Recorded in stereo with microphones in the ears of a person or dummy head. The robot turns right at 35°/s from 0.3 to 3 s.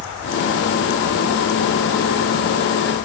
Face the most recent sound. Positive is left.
No sound to turn to.